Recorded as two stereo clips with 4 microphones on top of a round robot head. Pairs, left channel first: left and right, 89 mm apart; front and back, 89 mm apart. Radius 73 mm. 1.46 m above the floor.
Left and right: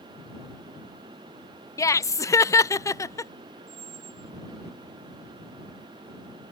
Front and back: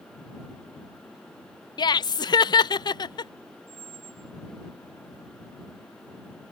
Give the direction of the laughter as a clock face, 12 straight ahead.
11 o'clock.